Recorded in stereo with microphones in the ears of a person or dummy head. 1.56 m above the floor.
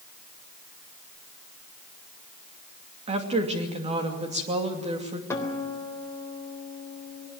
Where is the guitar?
15° left (ahead or behind), 3.5 m.